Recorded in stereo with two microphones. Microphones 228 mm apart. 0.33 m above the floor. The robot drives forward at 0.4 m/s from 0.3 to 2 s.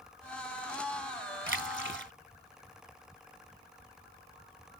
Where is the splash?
60° right (ahead or behind); by 2.1 s 55° right (ahead or behind).